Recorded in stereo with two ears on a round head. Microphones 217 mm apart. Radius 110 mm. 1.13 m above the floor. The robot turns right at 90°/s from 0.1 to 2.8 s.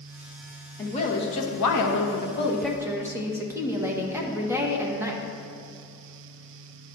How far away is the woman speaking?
About 1.2 m.